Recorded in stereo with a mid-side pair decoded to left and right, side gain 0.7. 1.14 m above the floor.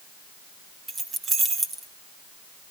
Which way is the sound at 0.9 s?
25° right.